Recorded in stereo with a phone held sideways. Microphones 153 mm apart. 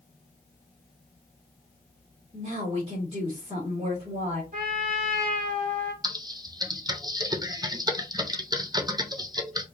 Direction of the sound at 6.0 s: 25° right (ahead or behind).